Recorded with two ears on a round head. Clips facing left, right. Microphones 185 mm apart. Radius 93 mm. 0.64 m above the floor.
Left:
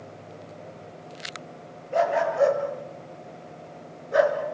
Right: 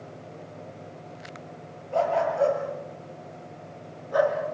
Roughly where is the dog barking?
Centre.